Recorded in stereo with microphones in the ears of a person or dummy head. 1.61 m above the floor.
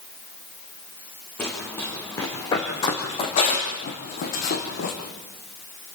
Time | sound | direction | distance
1.4 | running footsteps | 5° left (ahead or behind) | 4 m